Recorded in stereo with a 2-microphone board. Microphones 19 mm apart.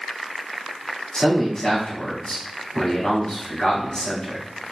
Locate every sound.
1.1 s a man speaking: 40° left (ahead or behind), 2.0 m